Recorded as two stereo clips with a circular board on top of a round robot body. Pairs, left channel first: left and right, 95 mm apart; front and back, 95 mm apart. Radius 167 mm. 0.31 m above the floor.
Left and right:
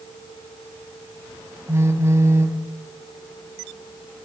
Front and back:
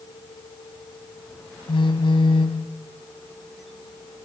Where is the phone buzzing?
30° right, 3 m.